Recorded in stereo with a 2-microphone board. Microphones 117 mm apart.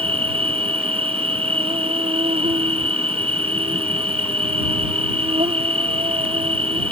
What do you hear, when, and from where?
0.0 s an insect: 60° right (ahead or behind)